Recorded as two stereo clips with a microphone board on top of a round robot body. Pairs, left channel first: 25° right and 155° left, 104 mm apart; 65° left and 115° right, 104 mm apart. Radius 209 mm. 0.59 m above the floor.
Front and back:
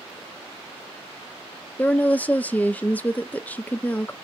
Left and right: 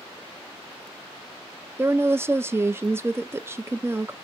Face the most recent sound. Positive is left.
turn(degrees=-80)